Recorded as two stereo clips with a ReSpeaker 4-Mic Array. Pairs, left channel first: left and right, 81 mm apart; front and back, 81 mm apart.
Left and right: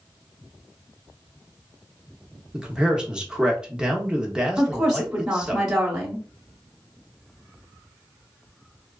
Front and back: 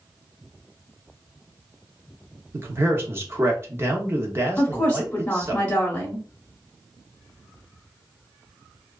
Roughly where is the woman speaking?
Ahead right.